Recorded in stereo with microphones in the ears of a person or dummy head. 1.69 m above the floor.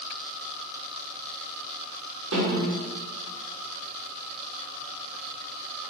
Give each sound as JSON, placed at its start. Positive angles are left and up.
{"t": 2.3, "sound": "a snare drum", "side_deg": -75, "distance_m": 6.0}